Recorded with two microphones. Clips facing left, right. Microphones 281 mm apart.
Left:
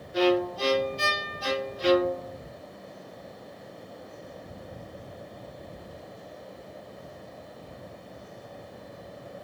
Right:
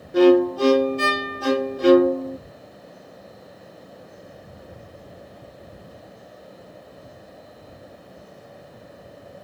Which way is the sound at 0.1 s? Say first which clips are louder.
Right 10 dB; 60° right (ahead or behind).